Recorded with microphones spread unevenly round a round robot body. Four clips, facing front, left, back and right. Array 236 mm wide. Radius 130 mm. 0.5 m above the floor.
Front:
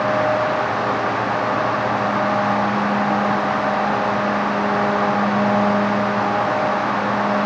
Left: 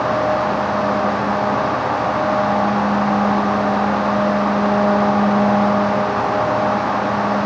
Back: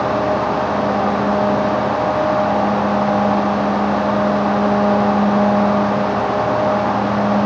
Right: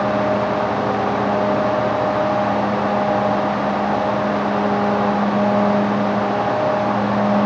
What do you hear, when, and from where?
Only background noise.